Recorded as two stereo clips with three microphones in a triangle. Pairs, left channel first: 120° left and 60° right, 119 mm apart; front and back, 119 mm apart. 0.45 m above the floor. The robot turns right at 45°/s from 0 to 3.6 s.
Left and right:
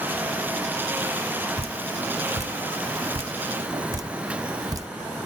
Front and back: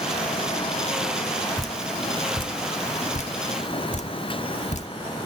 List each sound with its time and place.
1.6 s dripping: 90° right, 0.6 m; by 4.9 s straight ahead, 0.6 m